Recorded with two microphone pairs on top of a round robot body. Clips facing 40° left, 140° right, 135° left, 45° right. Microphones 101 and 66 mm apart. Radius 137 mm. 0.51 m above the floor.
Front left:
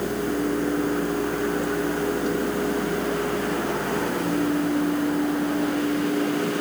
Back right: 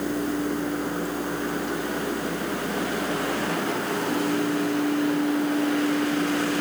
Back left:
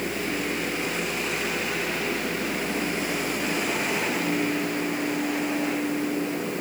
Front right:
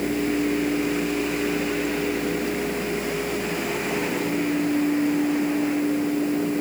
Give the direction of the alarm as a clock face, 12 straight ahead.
I don't hear an alarm.